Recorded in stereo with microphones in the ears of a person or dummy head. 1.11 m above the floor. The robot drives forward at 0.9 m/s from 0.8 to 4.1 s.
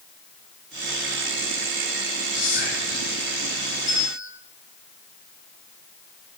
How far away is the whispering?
About 4.5 m.